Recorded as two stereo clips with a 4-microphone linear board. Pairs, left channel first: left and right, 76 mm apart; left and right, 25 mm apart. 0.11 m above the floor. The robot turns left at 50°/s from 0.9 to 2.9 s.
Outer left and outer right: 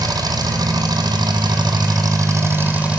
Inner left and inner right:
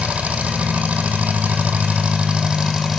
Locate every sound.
0.0 s an engine running: 65° right, 1.1 m; by 3.0 s 165° right, 1.1 m